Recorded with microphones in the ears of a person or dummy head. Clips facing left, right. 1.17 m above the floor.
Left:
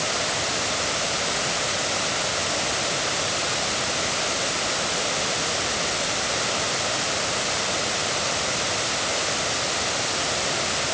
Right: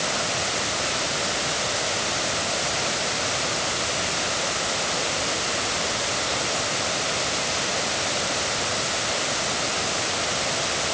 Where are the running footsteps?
I don't hear running footsteps.